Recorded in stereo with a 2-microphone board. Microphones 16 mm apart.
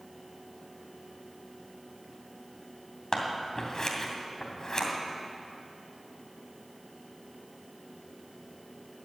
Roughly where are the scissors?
Left.